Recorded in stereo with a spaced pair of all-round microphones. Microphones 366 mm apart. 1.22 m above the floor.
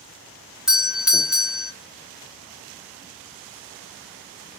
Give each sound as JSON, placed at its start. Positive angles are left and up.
{"t": 0.7, "sound": "a doorbell", "side_deg": 0, "distance_m": 0.7}